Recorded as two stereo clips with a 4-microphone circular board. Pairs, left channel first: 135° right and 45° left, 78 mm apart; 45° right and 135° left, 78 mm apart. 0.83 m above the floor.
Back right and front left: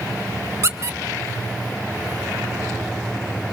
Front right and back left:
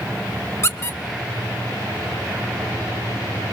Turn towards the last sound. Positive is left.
turn(degrees=0)